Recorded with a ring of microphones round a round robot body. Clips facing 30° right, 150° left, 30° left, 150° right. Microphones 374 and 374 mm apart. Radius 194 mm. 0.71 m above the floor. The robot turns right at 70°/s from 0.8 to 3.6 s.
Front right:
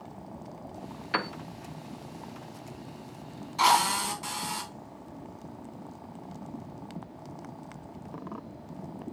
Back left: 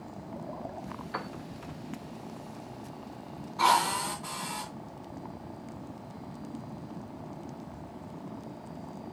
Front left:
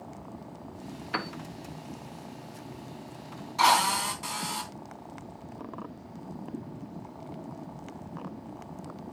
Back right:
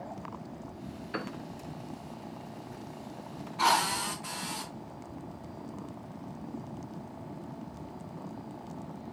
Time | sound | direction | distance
1.1 | a piano | 35° right | 0.6 m
3.6 | a drill | 5° left | 3.5 m